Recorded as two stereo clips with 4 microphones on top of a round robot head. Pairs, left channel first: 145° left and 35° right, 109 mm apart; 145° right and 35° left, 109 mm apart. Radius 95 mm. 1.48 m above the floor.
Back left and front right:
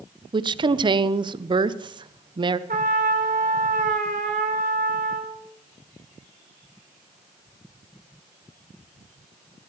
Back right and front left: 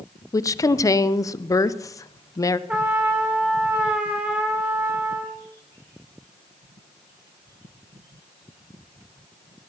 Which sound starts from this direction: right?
A woman speaking, at 0.3 s.